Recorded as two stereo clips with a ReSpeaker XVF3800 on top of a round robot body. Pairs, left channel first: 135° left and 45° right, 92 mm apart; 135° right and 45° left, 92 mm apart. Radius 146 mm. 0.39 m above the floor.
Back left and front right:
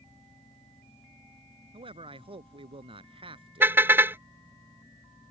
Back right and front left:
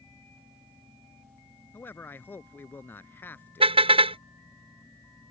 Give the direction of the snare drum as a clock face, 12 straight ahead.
I don't hear a snare drum.